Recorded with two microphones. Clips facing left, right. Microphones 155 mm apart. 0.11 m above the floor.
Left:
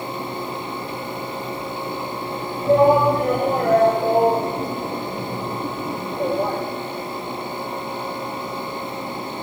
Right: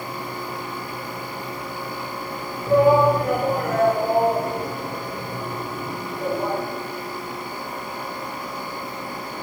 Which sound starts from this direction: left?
A shout, at 2.6 s.